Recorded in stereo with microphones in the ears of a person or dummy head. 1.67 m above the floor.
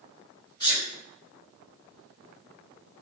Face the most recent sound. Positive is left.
turn(degrees=25)  # may be behind; listen again after turning